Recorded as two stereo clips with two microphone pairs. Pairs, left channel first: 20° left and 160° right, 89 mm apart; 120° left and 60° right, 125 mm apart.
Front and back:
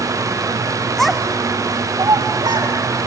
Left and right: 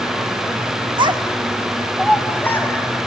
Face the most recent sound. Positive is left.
turn(degrees=-175)